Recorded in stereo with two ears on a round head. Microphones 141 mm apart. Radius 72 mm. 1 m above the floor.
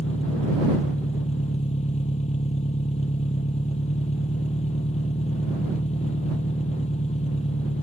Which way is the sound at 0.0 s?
45° left (ahead or behind).